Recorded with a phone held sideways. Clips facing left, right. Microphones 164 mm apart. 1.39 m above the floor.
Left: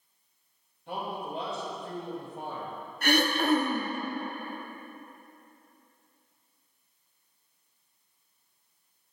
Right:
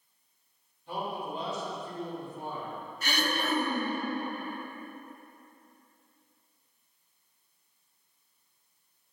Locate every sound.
0.9 s a man speaking: 60° left (ahead or behind), 2.5 m; by 2.9 s 75° left (ahead or behind), 1.1 m
3.0 s throat clearing: 55° left (ahead or behind), 0.7 m